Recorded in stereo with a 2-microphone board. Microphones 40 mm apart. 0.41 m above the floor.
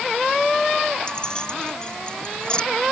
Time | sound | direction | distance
1.1 | keys jangling | 20° left (ahead or behind) | ?